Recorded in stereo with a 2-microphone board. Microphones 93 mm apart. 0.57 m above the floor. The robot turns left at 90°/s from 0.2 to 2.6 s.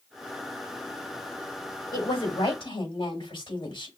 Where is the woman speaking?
130° left, 3.5 m; by 3.9 s 70° left, 3.5 m.